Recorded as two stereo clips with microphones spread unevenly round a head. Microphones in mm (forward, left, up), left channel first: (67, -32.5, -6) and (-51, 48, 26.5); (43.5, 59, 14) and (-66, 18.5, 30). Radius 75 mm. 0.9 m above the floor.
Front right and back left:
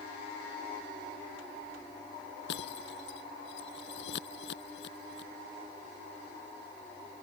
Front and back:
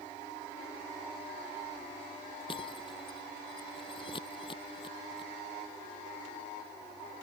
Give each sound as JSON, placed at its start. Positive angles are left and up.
{"t": 2.5, "sound": "breaking glass", "azimuth_deg": -40}